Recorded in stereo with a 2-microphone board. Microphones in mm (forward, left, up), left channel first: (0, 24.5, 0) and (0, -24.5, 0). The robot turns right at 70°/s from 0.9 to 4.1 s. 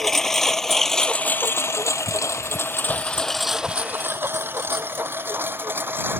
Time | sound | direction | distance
0.0 | a lawn mower | 10° left (ahead or behind) | ?